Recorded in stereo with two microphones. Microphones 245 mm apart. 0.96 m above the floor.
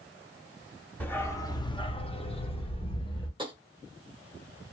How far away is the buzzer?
No buzzer in this recording.